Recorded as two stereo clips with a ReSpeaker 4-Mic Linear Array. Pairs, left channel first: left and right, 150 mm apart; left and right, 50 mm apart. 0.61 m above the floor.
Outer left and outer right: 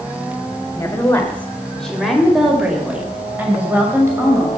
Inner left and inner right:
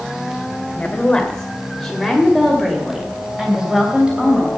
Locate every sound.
0.8 s a woman speaking: 20° left (ahead or behind), 2 m; by 4.5 s 20° right (ahead or behind), 3 m